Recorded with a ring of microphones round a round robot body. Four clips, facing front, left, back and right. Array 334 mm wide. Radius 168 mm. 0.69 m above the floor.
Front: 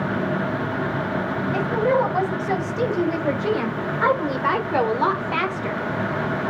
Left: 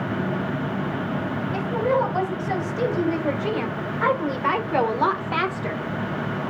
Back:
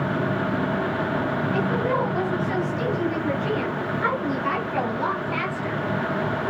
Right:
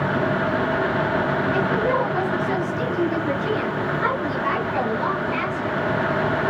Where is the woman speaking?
15° left, 3.5 m; by 5.8 s 60° left, 1.5 m.